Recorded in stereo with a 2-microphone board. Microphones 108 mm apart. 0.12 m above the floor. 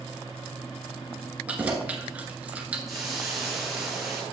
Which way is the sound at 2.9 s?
Centre (ahead or behind).